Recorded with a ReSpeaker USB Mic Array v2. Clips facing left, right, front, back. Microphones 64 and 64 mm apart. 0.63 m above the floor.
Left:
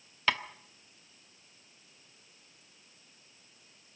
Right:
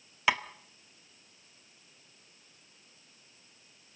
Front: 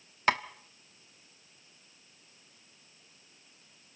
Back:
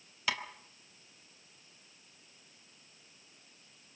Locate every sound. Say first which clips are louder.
0.3 s tapping: right 2 dB, front 8 dB; 15° right, 1.0 m